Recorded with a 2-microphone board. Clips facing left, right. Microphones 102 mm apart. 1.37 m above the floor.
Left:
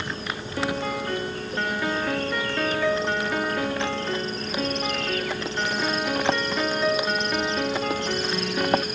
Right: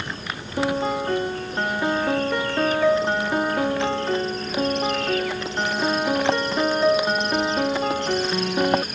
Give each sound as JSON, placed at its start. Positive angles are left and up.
{"t": 0.6, "sound": "a piano", "side_deg": -25}